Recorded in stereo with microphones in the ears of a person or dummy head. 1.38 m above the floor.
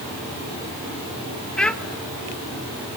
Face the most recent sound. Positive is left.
turn(degrees=0)  # may be behind; listen again after turning